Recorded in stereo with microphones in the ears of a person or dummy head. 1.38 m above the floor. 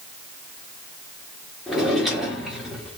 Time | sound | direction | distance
1.7 | a drawer | centre (ahead or behind) | 1.3 m